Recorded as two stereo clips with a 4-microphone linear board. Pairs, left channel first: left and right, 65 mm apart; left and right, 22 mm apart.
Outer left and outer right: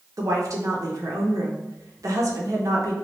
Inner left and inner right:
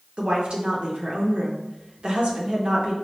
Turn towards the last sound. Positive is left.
turn(degrees=-55)  # may be behind; listen again after turning